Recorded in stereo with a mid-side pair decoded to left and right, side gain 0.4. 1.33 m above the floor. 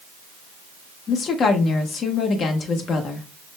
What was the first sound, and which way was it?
A woman speaking, 65° left.